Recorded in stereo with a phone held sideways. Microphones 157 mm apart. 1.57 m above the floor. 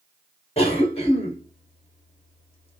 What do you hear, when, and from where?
0.6 s a cough: 40° left (ahead or behind), 1.9 m